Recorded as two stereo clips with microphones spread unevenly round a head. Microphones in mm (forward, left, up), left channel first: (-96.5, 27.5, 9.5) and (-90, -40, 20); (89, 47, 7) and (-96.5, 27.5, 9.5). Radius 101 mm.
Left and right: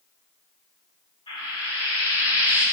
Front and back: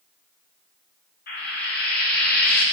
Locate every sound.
1.3 s frying: 40° left, 5.5 m